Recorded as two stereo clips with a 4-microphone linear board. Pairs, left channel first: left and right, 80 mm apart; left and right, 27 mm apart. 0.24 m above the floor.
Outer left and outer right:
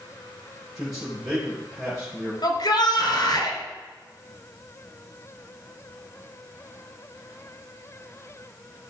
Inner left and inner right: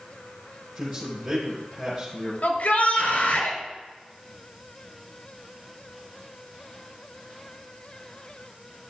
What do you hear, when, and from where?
0.8 s a man speaking: 10° right (ahead or behind), 4 m
2.4 s a shout: 70° left (ahead or behind), 3 m